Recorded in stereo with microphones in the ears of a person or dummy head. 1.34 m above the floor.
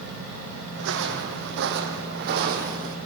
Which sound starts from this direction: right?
Footsteps, at 0.8 s.